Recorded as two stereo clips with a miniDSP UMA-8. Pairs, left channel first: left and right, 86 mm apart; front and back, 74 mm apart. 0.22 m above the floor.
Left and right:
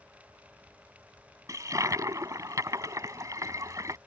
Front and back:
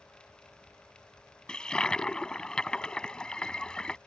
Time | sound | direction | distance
1.5 | a toilet flushing | 75° right | ?